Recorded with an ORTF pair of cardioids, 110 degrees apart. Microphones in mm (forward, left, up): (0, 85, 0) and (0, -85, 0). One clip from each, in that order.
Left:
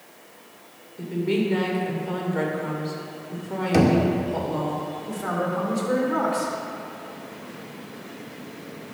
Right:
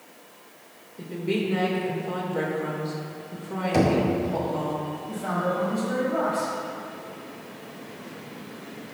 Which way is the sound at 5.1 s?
50° left.